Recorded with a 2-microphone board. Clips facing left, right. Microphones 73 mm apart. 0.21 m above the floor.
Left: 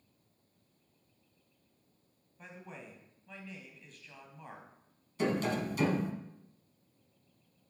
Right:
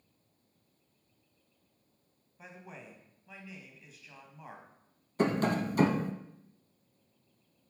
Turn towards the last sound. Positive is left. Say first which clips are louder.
# right 3 dB
turn(degrees=-50)  # may be behind; listen again after turning